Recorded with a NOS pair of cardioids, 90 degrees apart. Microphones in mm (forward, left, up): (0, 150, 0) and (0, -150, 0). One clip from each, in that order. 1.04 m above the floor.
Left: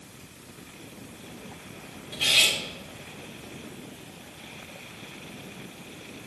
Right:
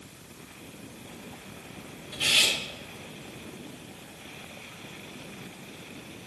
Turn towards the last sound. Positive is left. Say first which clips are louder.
# left 2 dB
turn(degrees=10)